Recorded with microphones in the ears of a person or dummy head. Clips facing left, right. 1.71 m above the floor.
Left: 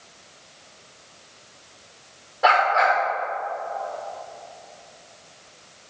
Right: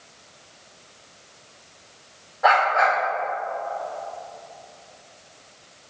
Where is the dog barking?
45° left (ahead or behind), 2.5 m.